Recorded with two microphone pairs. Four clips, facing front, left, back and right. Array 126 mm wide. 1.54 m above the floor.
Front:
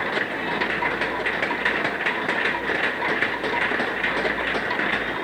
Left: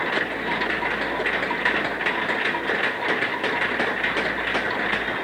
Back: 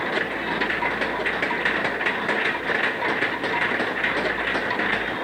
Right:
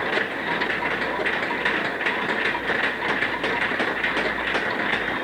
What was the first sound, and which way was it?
Only background noise.